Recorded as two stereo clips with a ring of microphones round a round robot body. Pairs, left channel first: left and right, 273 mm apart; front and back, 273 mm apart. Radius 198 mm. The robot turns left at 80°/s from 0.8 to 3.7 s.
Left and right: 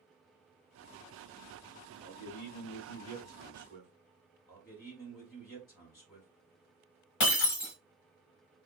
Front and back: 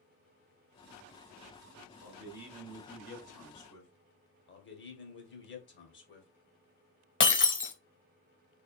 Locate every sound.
2.0 s a man speaking: 130° left, 2 m; by 3.9 s 5° right, 2 m
4.5 s a man speaking: 35° left, 1.5 m
7.2 s breaking glass: 50° left, 1.0 m